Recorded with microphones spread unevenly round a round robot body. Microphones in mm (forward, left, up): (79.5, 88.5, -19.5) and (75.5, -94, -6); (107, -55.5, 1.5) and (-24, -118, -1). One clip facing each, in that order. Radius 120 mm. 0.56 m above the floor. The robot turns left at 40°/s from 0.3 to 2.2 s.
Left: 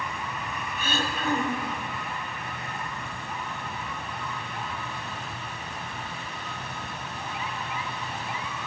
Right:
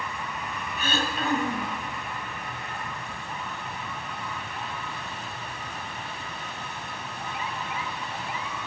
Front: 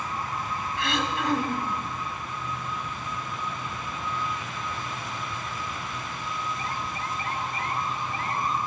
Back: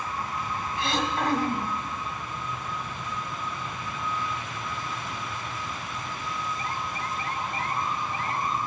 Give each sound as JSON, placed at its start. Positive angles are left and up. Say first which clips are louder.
{"t": 0.8, "sound": "throat clearing", "louder": "right 2 dB, back 1 dB", "azimuth_deg": -100, "distance_m": 1.2}